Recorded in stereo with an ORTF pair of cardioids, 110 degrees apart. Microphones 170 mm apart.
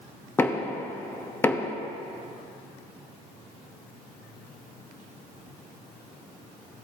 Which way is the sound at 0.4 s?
15° left.